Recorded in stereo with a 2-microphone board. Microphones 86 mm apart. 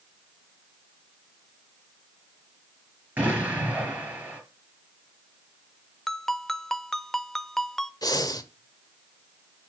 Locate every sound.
3.2 s an explosion: 20° right (ahead or behind), 6 m
6.1 s a ringtone: 5° left (ahead or behind), 0.6 m
8.0 s breathing: 45° left (ahead or behind), 1.2 m